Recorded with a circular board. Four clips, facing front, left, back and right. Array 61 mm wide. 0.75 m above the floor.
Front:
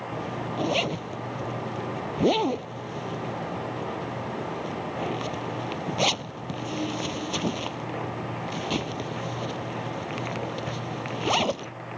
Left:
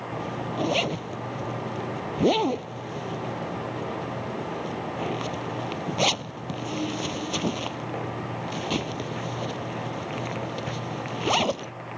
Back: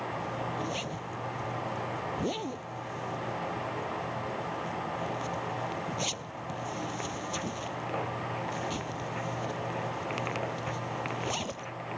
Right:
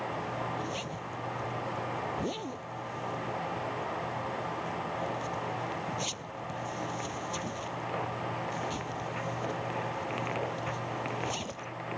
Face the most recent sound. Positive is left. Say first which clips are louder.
# left 4 dB, front 3 dB
turn(degrees=50)